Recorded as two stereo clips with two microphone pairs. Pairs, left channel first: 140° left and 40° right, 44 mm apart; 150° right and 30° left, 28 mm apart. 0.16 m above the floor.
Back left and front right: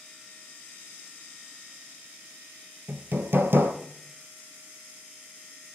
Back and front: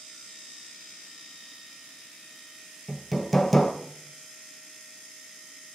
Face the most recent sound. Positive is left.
turn(degrees=-70)